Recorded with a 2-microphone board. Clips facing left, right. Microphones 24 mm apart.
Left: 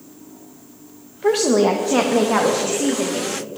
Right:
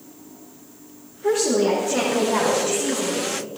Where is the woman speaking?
55° left (ahead or behind), 1.6 m; by 3.4 s 80° left, 3.5 m.